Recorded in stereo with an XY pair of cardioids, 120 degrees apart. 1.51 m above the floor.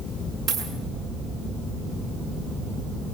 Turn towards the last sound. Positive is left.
turn(degrees=-35)